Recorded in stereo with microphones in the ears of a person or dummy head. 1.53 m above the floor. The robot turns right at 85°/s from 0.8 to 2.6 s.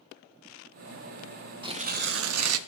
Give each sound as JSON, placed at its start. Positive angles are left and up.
{"t": 1.6, "sound": "tearing paper", "azimuth_deg": -160, "distance_m": 0.5}